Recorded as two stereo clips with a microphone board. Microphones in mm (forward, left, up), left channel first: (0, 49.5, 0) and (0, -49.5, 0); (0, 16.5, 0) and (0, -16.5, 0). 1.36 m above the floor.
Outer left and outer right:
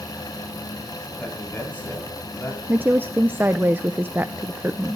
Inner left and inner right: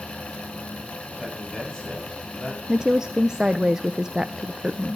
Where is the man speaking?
20° left (ahead or behind), 7.5 m.